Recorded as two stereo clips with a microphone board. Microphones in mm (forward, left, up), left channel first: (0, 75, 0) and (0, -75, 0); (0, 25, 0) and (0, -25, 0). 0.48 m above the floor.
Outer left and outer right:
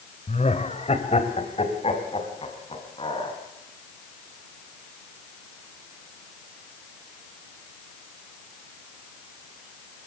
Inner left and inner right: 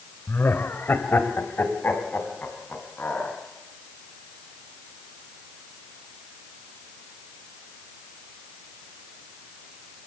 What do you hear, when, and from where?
0.3 s laughter: 50° left (ahead or behind), 2.0 m; by 3.4 s 40° left (ahead or behind), 6 m